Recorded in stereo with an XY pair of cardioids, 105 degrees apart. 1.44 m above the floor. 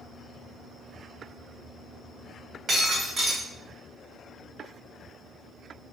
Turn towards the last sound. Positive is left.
turn(degrees=-45)